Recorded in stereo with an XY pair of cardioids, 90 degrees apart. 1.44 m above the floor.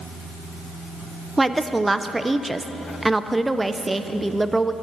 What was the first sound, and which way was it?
A woman speaking, 20° right.